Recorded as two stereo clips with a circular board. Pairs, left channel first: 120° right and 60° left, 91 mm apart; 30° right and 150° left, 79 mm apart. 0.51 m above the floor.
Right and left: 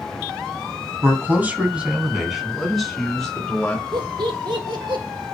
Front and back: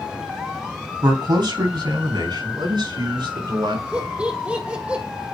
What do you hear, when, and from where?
1.0 s a man speaking: 125° left, 3 m; by 3.8 s 160° left, 5 m
3.9 s laughter: 75° left, 2.5 m